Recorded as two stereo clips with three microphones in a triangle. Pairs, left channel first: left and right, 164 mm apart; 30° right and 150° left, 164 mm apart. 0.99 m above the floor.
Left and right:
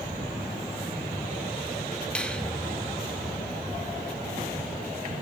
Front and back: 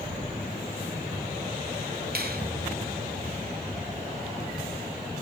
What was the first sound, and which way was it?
A finger snap, 175° left.